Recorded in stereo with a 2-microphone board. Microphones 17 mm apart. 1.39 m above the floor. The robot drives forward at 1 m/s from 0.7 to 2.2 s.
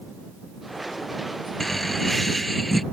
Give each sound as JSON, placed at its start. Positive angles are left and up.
{"t": 1.6, "sound": "laughter", "side_deg": 15}